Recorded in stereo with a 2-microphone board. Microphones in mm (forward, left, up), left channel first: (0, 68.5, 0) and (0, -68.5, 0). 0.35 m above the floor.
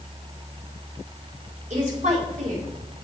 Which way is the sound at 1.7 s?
65° right (ahead or behind).